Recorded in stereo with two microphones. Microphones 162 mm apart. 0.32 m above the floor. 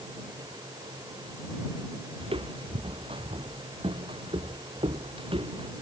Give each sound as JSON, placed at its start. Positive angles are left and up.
{"t": 2.2, "sound": "footsteps", "side_deg": -35}